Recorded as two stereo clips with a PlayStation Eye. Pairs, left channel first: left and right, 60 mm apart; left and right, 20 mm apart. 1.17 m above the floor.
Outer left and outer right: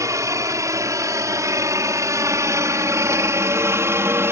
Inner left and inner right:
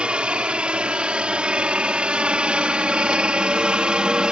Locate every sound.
0.0 s a helicopter: 65° right (ahead or behind); by 4.3 s 50° right (ahead or behind)